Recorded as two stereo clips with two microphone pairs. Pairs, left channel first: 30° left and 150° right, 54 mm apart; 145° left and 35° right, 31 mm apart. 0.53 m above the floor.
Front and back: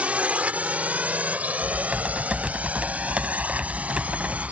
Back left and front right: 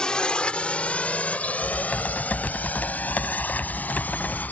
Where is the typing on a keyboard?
145° left.